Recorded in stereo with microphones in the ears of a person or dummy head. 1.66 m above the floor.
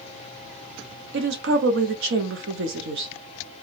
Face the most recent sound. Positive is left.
turn(degrees=-75)  # may be behind; listen again after turning